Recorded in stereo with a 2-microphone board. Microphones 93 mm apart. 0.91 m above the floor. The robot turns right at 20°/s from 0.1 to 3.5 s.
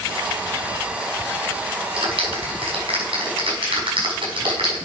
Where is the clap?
80° right, 6 m; by 4.9 s 70° right (ahead or behind), 6 m.